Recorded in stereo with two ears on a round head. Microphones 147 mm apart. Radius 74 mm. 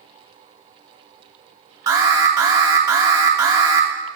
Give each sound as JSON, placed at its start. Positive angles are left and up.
{"t": 1.9, "sound": "an alarm", "side_deg": -20, "distance_m": 1.4}